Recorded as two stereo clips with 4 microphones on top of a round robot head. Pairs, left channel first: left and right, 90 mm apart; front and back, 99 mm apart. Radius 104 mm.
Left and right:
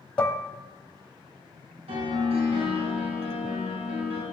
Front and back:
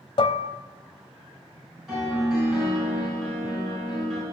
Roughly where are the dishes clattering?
Ahead.